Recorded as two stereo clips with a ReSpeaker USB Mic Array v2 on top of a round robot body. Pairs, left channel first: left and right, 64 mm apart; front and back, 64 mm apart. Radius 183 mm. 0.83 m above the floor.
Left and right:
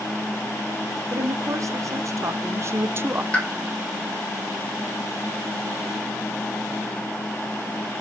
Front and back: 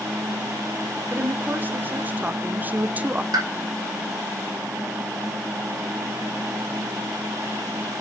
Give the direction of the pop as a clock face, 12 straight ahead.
7 o'clock.